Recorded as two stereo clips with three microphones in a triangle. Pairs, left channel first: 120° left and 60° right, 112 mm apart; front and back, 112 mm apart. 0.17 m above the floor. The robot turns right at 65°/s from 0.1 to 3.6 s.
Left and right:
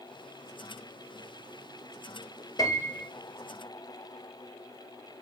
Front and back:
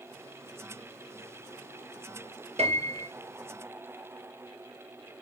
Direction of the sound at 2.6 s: 170° left.